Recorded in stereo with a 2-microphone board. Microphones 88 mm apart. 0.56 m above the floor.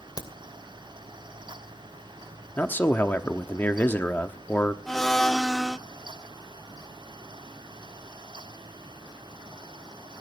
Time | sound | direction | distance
0.2 | a crack | 45° left (ahead or behind) | 2.5 m
2.6 | a man speaking | 25° left (ahead or behind) | 1.0 m
4.9 | a blender | 5° left (ahead or behind) | 0.6 m